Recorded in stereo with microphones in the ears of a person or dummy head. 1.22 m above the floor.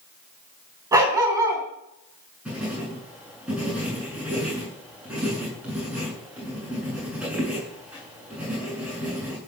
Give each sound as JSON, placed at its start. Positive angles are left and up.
{"t": 0.9, "sound": "a dog barking", "side_deg": -15, "distance_m": 4.0}
{"t": 2.5, "sound": "writing", "side_deg": -10, "distance_m": 9.0}